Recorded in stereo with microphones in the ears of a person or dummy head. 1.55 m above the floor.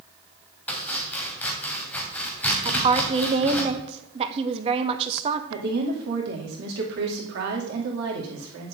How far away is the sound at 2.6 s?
About 0.8 m.